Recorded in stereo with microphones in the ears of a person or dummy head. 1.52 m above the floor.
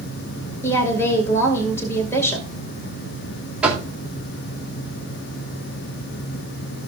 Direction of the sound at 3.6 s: 5° right (ahead or behind).